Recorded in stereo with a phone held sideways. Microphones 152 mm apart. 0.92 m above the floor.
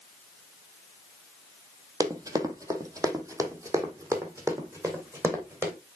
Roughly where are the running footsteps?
Right.